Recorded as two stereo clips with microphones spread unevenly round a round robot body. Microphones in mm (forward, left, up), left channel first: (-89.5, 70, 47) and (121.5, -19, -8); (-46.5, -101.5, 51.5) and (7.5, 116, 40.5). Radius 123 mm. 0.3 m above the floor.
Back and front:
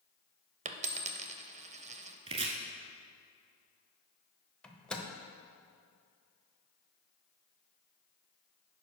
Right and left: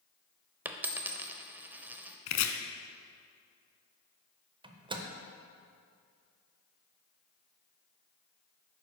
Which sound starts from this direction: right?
Chopping, at 2.3 s.